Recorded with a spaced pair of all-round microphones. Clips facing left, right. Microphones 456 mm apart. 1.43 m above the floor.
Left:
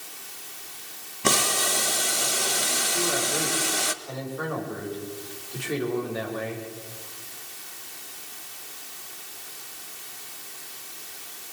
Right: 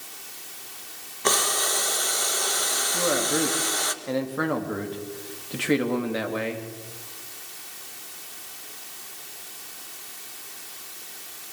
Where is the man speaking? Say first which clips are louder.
Right 4 dB; 90° right, 2.5 m.